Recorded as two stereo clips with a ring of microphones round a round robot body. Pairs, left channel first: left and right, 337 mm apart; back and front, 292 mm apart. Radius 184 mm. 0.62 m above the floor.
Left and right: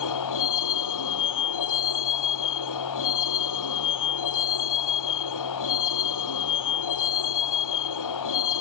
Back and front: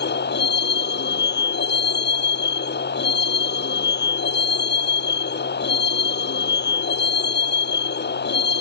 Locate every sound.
0.0 s a vehicle: 125° left